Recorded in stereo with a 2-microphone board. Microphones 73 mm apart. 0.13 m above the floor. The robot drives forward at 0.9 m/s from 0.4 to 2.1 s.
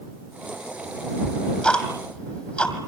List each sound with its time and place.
1.2 s ticking: 15° left (ahead or behind), 4 m